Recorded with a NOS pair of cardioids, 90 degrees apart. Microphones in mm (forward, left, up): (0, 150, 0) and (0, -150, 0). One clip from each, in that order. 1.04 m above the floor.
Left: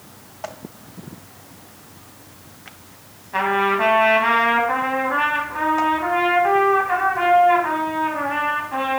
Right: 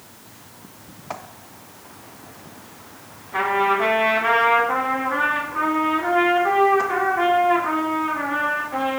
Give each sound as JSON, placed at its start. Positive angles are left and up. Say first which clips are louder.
{"t": 3.3, "sound": "a trumpet", "louder": "left 1 dB", "azimuth_deg": 40, "distance_m": 1.3}